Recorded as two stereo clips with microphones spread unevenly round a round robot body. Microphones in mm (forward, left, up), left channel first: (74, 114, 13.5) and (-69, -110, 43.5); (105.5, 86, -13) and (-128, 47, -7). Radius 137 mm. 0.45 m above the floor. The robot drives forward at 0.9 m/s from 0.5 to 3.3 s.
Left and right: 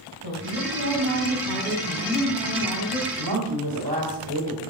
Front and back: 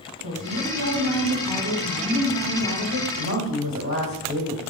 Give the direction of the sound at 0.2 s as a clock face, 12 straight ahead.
6 o'clock.